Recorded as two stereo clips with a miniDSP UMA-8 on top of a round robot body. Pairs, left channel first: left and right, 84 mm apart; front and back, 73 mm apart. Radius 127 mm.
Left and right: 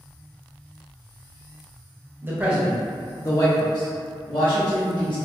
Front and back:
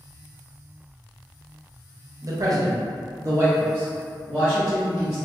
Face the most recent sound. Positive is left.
turn(degrees=95)